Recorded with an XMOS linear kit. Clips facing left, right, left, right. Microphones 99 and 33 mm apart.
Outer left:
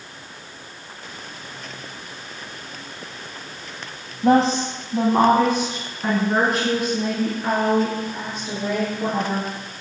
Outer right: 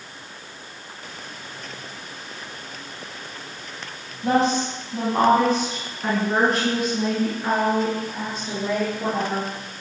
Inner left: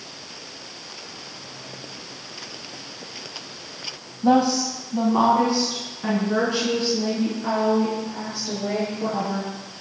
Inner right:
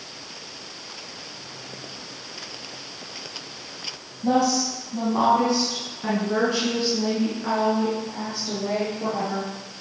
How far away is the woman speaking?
About 1.7 m.